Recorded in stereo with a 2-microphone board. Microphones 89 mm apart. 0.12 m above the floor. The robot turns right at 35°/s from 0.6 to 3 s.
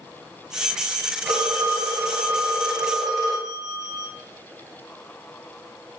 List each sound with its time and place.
1.2 s a phone ringing: 55° right, 1.7 m; by 4.1 s 5° left, 1.7 m